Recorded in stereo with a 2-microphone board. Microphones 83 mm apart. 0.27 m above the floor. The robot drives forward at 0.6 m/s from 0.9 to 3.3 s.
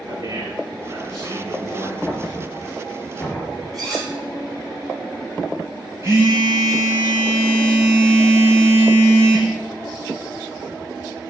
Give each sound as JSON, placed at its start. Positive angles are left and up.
{"t": 0.1, "sound": "a man speaking", "side_deg": -45, "distance_m": 4.0}
{"t": 2.0, "sound": "knocking", "side_deg": 15, "distance_m": 3.0}
{"t": 3.7, "sound": "cutlery clinking", "side_deg": 5, "distance_m": 3.5}
{"t": 6.0, "sound": "a phone buzzing", "side_deg": -40, "distance_m": 1.9}